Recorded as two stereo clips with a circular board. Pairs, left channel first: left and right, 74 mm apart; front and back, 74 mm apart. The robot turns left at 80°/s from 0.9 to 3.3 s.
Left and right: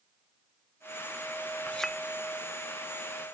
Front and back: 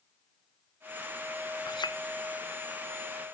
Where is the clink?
20° left; by 2.0 s 5° right.